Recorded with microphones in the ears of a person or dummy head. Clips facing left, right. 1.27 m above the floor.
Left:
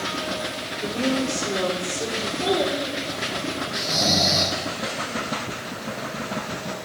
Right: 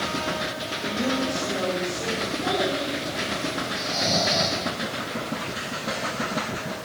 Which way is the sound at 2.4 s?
60° left (ahead or behind).